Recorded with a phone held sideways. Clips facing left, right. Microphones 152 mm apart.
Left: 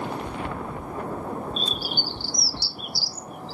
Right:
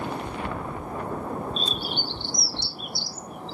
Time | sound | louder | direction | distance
1.6 | a bird | even | 5° left (ahead or behind) | 1.0 m